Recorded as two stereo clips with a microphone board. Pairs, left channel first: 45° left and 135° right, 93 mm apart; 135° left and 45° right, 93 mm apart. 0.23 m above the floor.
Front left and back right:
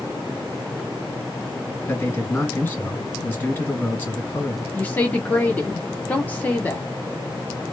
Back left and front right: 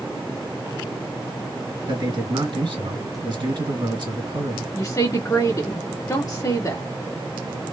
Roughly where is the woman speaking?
Left.